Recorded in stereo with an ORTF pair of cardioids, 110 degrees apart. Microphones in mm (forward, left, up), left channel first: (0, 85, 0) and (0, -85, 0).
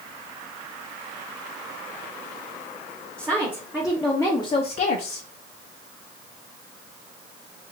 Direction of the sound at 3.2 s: 15° right.